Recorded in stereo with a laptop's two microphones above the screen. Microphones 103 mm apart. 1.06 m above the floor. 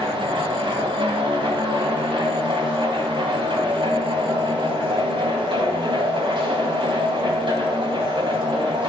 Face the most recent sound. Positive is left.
turn(degrees=-55)  # may be behind; listen again after turning